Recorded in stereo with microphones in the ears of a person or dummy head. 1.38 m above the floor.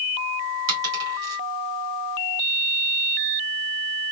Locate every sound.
0.7 s a dropped coin: 70° right (ahead or behind), 1.9 m